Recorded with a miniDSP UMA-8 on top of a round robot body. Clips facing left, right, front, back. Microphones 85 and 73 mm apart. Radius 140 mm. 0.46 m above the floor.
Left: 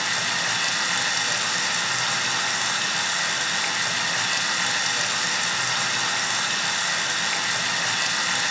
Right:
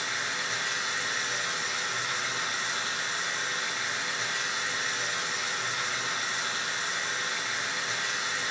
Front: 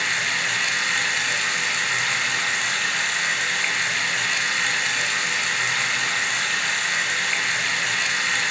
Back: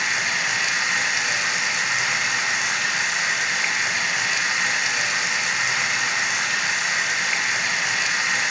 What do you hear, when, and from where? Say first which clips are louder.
0.0 s running water: left 6 dB, back 1 dB; 100° left, 1.9 m